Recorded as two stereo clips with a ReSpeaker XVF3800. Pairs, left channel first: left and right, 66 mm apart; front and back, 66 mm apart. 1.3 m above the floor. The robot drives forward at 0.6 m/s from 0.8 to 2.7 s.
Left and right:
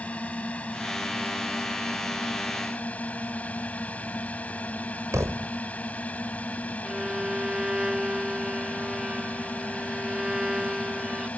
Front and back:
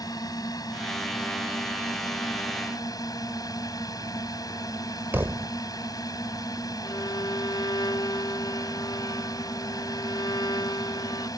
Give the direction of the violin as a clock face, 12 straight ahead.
12 o'clock.